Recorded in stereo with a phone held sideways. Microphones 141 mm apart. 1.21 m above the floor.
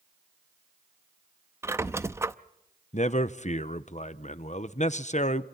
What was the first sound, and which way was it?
A squeak, 20° right (ahead or behind).